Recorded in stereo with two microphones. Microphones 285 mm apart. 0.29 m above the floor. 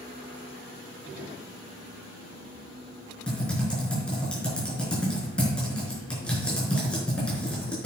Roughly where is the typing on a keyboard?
Centre.